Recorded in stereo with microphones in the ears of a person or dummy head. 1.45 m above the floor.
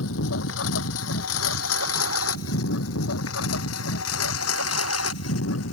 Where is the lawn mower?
70° left (ahead or behind); by 5.8 s 85° left.